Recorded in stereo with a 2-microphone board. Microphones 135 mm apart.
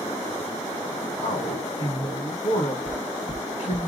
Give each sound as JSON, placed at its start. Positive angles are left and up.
{"t": 1.2, "sound": "a man speaking", "side_deg": 45, "distance_m": 2.5}
{"t": 2.9, "sound": "knocking", "side_deg": 50, "distance_m": 1.1}